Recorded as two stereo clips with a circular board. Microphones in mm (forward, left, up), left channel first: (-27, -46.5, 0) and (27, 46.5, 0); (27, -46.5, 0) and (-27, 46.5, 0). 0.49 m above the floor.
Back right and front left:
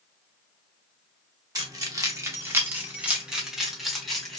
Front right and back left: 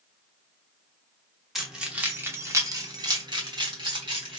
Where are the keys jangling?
30° left, 0.9 m; by 4.4 s 155° left, 1.4 m.